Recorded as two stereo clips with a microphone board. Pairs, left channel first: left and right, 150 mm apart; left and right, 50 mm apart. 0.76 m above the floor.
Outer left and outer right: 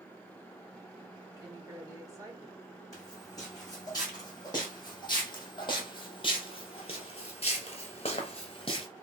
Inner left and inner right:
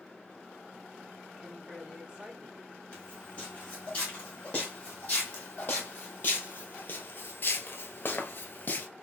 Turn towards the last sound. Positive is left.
turn(degrees=30)  # may be behind; listen again after turning